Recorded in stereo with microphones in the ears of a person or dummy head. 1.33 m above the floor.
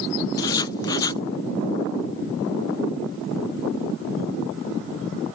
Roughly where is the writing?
Left.